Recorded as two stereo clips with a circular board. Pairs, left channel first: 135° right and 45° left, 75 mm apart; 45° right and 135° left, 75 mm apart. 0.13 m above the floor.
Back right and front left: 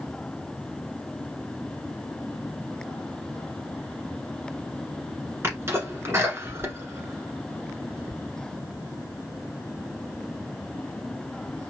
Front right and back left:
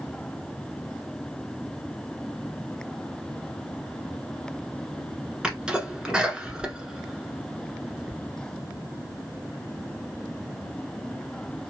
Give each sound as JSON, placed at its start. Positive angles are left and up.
{"t": 5.4, "sound": "a sneeze", "azimuth_deg": 65, "distance_m": 1.2}